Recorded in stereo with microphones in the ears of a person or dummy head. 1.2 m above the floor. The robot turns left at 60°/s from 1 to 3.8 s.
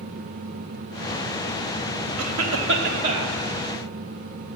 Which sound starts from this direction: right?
A cough, at 2.2 s.